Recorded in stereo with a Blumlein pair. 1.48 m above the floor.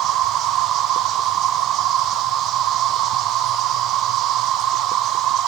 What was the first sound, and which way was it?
An insect, 35° right.